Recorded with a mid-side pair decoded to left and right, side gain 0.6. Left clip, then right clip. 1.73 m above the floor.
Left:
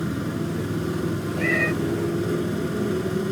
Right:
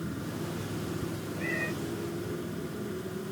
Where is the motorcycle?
45° left; by 3.3 s 55° left.